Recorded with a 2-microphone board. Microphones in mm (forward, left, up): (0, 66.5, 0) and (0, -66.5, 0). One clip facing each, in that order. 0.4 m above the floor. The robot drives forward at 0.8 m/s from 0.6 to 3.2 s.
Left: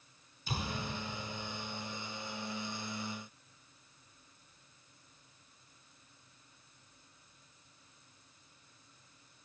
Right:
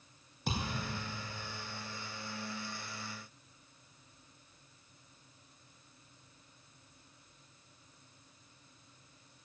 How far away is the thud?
About 6.5 m.